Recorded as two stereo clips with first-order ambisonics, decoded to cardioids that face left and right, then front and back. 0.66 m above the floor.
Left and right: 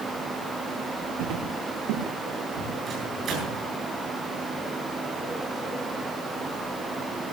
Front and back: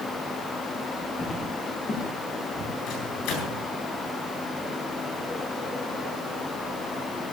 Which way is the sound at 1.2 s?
70° right.